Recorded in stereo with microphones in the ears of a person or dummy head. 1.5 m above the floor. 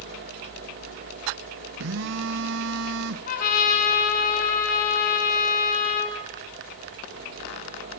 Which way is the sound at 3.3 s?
65° left (ahead or behind).